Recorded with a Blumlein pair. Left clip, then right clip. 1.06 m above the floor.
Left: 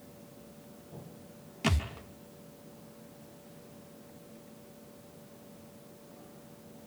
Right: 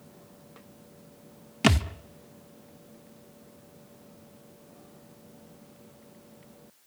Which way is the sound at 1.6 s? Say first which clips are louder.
Right 8 dB; 30° right.